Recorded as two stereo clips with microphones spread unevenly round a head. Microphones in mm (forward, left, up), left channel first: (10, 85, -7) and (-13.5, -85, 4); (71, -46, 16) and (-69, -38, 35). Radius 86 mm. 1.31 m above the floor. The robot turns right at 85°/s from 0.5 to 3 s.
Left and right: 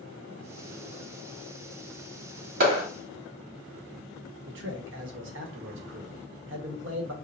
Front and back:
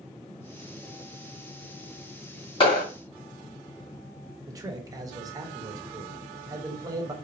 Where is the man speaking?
115° right, 1.1 m.